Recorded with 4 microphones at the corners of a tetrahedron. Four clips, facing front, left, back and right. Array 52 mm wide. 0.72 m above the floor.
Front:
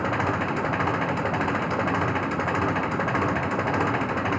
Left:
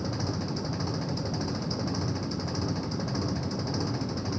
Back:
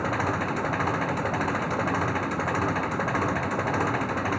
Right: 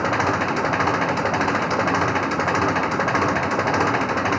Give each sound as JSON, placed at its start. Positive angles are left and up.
{"t": 0.0, "sound": "an engine running", "azimuth_deg": -85}